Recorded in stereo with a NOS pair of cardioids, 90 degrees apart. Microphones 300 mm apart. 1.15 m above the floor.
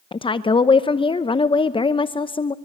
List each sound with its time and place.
0.1 s a woman speaking: 15° left, 0.7 m